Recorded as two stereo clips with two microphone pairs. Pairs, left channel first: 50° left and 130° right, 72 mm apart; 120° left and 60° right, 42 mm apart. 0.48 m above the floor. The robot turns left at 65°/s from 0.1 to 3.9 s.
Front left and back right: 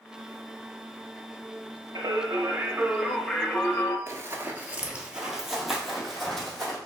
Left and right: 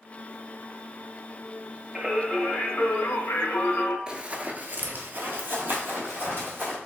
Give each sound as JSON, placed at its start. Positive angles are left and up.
{"t": 1.9, "sound": "singing", "azimuth_deg": -140, "distance_m": 0.5}
{"t": 4.1, "sound": "running footsteps", "azimuth_deg": -125, "distance_m": 0.5}